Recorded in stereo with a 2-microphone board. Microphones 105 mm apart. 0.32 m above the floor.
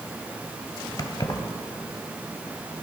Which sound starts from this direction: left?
Keys jangling, at 1.0 s.